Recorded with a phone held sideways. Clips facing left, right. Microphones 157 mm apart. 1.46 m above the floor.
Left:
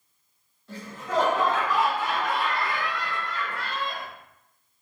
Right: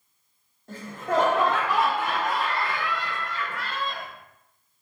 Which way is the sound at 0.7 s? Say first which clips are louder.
Right 3 dB; 50° right (ahead or behind).